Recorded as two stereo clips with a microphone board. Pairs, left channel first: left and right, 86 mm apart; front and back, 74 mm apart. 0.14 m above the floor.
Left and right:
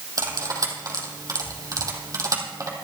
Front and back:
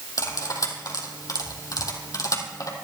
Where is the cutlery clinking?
40° right, 3 m.